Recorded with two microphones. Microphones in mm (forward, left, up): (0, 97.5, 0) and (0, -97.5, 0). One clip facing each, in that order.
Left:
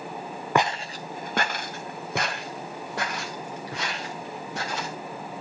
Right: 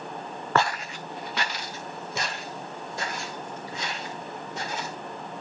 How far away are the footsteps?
About 0.5 m.